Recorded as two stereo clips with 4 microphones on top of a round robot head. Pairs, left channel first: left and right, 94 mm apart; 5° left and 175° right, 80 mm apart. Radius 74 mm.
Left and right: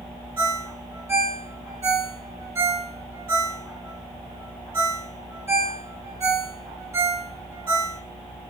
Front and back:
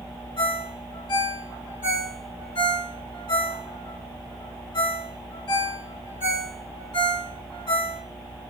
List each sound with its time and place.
0.4 s a ringtone: 30° right, 1.7 m